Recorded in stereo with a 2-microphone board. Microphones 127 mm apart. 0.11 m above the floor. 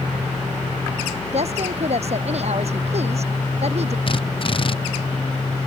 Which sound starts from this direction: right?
A woman speaking, at 1.3 s.